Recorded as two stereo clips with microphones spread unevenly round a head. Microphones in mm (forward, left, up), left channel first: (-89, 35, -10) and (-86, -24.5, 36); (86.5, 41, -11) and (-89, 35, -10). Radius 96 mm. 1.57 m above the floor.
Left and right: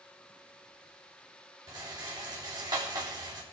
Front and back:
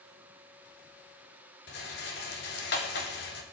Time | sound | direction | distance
1.7 | a rattle | 40° right | 3 m